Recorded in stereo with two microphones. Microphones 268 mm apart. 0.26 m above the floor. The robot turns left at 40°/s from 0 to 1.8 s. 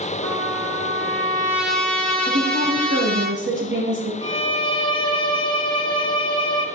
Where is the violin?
20° left (ahead or behind), 1.3 m.